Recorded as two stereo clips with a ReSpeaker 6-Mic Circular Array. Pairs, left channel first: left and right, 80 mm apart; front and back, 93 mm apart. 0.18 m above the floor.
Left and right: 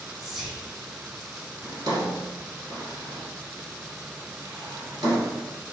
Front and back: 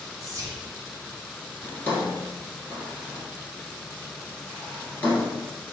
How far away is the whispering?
About 1.6 m.